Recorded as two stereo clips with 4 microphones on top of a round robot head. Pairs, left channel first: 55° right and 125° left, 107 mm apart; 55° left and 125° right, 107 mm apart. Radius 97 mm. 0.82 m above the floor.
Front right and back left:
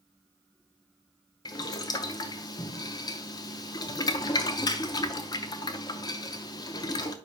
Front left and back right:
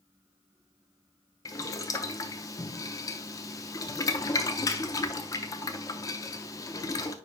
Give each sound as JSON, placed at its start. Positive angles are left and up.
{"t": 1.4, "sound": "boiling", "azimuth_deg": 0, "distance_m": 0.6}